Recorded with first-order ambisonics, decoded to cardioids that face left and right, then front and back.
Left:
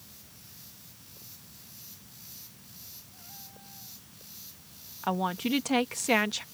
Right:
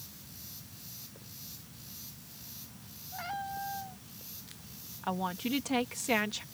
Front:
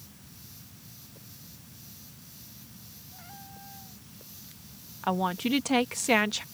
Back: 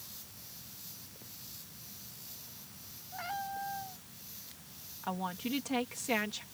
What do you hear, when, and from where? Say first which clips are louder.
3.1 s a cat meowing: right 13 dB, back 12 dB; 125° right
5.0 s a woman speaking: left 5 dB, front 9 dB; 25° left